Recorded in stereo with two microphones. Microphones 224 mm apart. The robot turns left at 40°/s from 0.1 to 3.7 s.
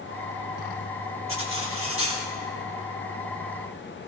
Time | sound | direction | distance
1.3 | cutlery clinking | 75° right | 2.5 m